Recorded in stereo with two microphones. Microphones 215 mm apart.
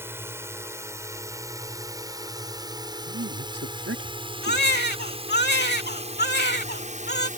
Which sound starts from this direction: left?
A baby crying, at 4.4 s.